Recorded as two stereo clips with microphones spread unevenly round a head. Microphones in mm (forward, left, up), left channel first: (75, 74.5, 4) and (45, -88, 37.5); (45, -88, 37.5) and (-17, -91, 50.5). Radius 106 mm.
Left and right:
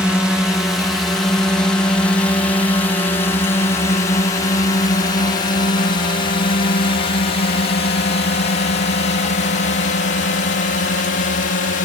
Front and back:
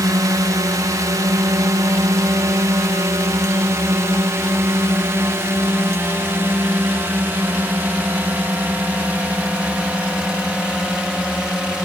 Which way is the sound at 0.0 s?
165° left.